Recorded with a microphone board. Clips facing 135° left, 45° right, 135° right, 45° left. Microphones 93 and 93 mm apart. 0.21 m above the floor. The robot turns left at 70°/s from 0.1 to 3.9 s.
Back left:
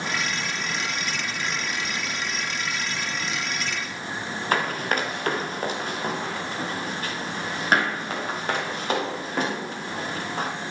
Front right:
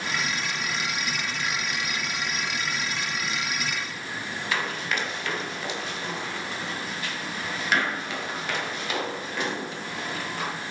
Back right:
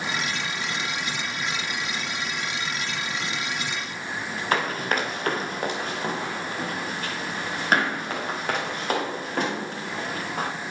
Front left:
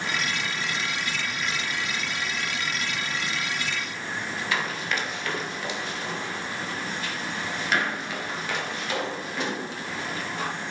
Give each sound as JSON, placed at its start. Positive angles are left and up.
{"t": 4.5, "sound": "running footsteps", "azimuth_deg": 180, "distance_m": 2.5}